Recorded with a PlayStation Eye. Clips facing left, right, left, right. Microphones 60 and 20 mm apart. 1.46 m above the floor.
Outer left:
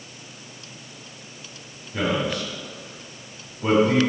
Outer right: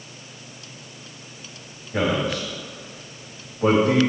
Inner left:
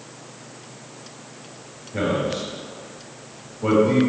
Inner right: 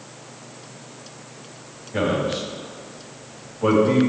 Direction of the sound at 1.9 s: 80° right.